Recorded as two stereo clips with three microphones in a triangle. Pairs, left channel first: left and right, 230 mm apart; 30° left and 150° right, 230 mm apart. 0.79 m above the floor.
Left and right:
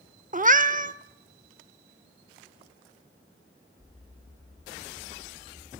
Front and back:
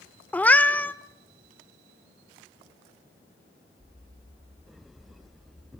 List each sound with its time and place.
0.3 s a cat meowing: 50° right, 0.5 m